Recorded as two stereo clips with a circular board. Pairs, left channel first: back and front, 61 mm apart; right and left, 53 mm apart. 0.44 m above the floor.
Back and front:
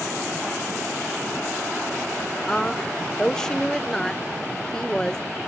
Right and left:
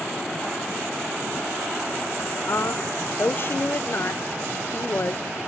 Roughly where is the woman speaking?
Right.